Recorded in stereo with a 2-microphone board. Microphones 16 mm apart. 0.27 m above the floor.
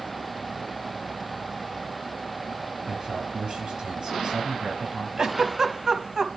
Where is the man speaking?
70° right (ahead or behind), 5 m.